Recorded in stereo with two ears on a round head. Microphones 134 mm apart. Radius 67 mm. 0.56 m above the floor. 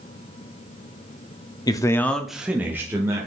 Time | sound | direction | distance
1.7 | a man speaking | 25° left (ahead or behind) | 0.7 m